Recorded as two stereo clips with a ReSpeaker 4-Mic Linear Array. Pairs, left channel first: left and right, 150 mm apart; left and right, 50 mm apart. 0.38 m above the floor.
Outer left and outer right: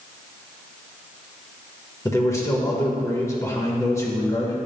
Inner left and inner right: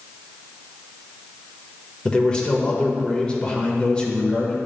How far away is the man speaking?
About 1.1 m.